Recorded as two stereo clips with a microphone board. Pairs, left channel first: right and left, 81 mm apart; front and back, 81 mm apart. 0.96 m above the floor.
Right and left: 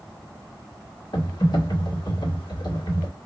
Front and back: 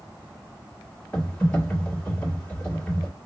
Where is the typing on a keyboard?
75° right, 1.7 m.